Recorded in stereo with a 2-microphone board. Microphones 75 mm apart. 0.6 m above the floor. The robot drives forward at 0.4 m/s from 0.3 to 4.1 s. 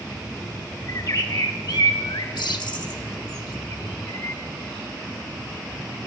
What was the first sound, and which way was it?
A bird, 45° left (ahead or behind).